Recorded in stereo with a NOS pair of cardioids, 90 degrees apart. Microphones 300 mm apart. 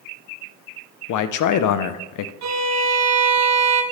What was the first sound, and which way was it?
A man speaking, 70° left.